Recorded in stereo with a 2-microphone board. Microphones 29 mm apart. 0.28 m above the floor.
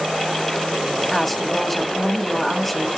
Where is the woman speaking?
5° left (ahead or behind), 1.8 m.